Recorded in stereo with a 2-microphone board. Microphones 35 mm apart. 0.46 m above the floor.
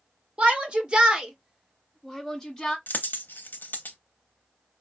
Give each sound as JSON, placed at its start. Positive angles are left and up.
{"t": 0.4, "sound": "a shout", "side_deg": -35, "distance_m": 1.3}
{"t": 2.9, "sound": "a dropped coin", "side_deg": 80, "distance_m": 0.7}